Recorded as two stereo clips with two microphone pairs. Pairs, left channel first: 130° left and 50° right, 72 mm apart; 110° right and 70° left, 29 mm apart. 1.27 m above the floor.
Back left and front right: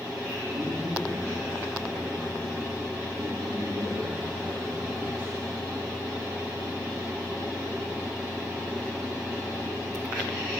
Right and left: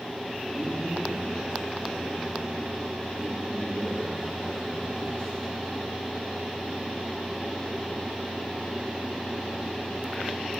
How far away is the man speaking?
About 3 m.